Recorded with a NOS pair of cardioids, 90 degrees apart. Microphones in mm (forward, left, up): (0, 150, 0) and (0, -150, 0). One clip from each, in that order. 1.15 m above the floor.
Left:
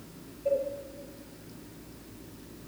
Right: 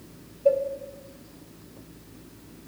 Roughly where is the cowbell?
Ahead right.